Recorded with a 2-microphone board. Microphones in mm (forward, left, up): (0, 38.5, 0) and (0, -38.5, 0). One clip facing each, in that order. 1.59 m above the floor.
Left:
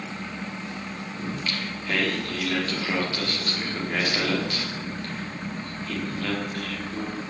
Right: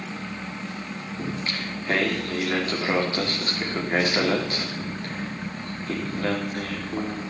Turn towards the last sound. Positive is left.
turn(degrees=-25)  # may be behind; listen again after turning